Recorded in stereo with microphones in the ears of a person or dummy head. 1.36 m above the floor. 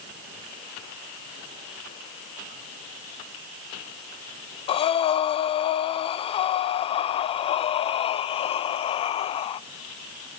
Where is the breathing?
30° left (ahead or behind), 0.7 m.